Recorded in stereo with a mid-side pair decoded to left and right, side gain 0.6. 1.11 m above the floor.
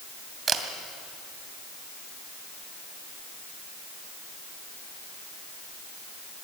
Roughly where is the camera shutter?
Ahead right.